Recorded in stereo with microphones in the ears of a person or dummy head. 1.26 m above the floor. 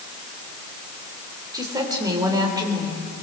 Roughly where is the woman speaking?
Right.